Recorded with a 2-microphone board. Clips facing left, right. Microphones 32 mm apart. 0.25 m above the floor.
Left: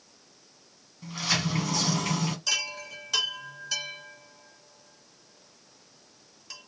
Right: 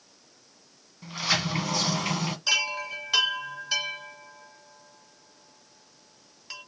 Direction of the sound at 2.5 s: 25° right (ahead or behind).